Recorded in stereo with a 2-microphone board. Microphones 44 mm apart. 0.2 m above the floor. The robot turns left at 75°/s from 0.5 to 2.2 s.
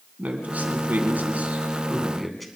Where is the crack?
No crack in this recording.